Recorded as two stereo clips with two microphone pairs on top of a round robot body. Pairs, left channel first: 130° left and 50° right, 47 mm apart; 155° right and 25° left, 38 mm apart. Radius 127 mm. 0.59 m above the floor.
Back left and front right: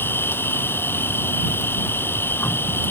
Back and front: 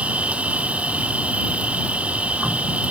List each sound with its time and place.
0.0 s an insect: 85° left